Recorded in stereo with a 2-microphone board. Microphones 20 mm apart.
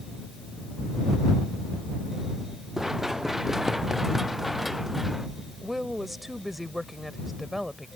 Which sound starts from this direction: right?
Running footsteps, at 2.8 s.